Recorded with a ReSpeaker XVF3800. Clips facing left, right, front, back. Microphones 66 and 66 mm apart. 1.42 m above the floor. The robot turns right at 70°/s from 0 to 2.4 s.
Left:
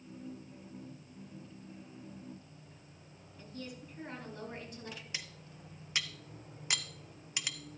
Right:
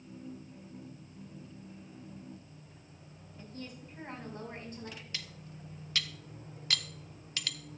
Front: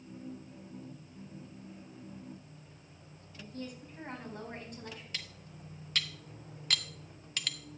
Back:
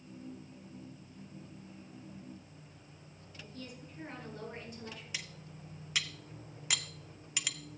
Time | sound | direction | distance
3.4 | a woman speaking | 35° right | 4.5 m
5.1 | cutlery clinking | 120° left | 0.6 m